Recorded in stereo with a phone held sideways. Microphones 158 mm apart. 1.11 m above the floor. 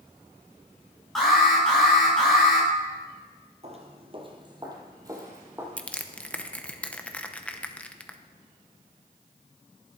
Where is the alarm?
Centre (ahead or behind), 6 m.